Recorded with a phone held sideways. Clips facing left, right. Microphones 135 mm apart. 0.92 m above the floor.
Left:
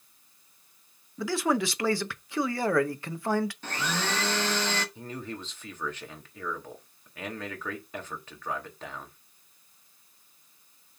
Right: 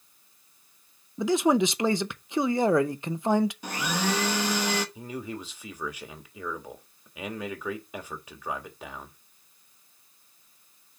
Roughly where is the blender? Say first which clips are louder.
Right 3 dB; centre.